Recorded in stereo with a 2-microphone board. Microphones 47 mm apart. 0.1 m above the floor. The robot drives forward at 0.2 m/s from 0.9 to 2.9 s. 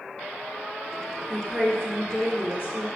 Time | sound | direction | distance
1.3 | a woman speaking | 20° left (ahead or behind) | 1.7 m